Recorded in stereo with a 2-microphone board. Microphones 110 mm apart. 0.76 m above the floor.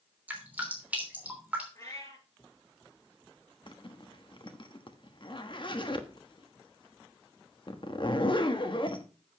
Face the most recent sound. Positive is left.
turn(degrees=50)  # may be behind; listen again after turning